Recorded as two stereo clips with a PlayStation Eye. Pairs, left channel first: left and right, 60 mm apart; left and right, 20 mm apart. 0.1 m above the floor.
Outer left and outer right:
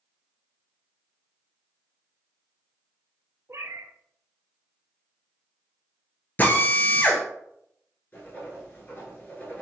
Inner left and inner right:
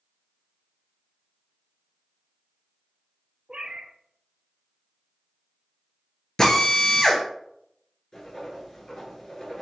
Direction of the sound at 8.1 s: 30° left (ahead or behind).